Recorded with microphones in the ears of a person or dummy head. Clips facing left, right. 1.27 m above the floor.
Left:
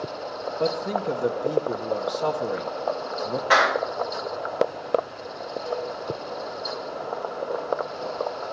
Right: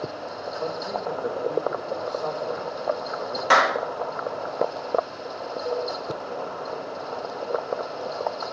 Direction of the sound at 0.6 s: 50° left (ahead or behind).